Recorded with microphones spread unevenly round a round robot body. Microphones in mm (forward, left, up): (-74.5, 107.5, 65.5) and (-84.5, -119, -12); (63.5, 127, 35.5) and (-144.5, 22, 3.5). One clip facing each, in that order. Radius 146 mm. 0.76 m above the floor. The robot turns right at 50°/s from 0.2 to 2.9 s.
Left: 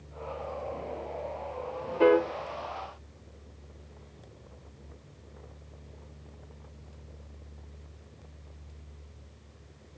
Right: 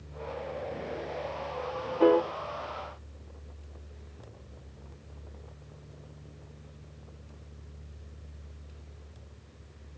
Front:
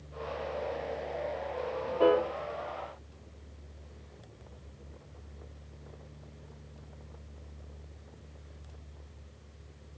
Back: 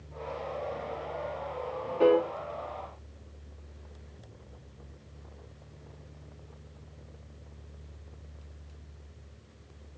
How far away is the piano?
About 1.5 m.